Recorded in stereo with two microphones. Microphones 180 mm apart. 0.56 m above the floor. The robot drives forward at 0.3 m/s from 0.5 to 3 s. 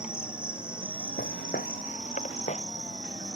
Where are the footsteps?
65° left (ahead or behind); by 2.6 s 40° left (ahead or behind).